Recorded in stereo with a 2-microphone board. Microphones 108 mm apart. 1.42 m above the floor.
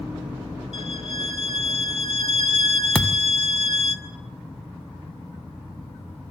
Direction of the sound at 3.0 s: 10° left (ahead or behind).